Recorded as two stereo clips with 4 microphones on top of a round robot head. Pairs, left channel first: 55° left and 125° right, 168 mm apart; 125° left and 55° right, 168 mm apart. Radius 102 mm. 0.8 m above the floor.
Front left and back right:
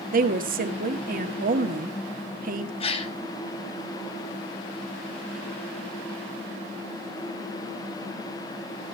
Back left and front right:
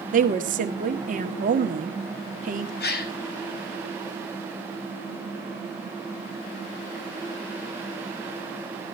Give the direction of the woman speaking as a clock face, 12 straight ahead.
3 o'clock.